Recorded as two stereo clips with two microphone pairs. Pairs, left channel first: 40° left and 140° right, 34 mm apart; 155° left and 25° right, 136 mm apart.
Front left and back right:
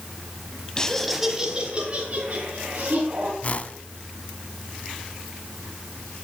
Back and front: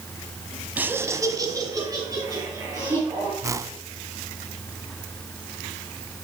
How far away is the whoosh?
About 0.8 m.